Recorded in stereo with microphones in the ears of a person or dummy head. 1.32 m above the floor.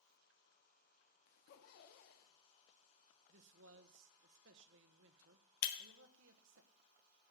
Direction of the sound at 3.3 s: 70° right (ahead or behind).